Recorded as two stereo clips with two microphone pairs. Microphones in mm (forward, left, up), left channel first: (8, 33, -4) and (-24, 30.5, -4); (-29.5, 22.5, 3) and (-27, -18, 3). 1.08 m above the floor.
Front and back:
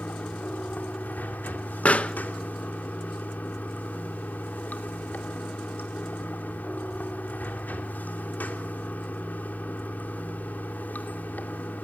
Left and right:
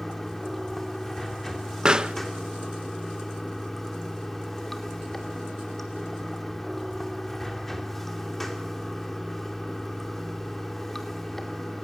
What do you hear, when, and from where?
0.0 s running water: 10° left, 2.5 m
1.9 s a pop: 25° right, 1.0 m